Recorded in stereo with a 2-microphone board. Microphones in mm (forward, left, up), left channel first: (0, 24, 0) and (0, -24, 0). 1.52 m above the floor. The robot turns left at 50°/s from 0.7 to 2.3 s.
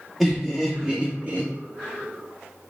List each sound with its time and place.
0.2 s laughter: centre (ahead or behind), 0.6 m; by 1.5 s 40° right (ahead or behind), 0.6 m